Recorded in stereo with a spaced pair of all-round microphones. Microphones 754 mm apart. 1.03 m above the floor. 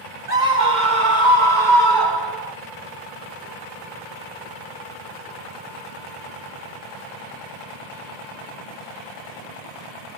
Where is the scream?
70° right (ahead or behind), 3 m; by 2.5 s 60° right (ahead or behind), 4 m.